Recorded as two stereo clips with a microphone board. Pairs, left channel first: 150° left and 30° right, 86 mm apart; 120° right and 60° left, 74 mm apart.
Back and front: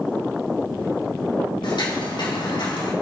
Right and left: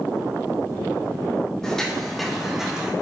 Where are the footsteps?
160° left, 4 m; by 2.9 s 135° left, 3.5 m.